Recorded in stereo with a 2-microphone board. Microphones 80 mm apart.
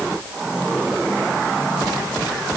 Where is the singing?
I don't hear singing.